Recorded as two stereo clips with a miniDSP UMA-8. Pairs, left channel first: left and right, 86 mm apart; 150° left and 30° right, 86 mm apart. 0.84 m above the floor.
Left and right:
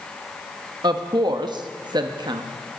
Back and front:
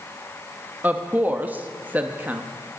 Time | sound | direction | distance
0.8 | a woman speaking | 95° right | 0.9 m